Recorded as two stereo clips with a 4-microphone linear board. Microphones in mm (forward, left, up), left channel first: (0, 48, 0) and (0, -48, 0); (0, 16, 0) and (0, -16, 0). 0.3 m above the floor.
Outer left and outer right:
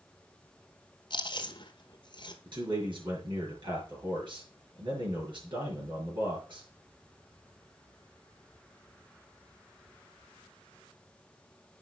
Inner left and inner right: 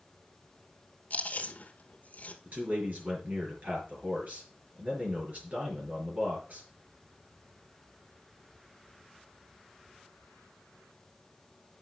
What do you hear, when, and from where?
1.1 s chewing: 55° left (ahead or behind), 1.3 m
2.5 s a man speaking: 60° right (ahead or behind), 5 m